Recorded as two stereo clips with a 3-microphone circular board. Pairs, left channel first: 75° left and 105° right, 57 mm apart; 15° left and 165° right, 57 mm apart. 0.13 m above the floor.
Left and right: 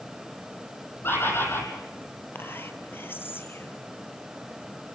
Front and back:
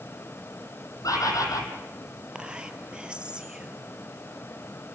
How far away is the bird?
About 4 m.